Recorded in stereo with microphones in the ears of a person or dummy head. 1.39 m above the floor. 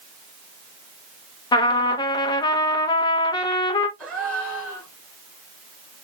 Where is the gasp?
5° left (ahead or behind), 1.9 m.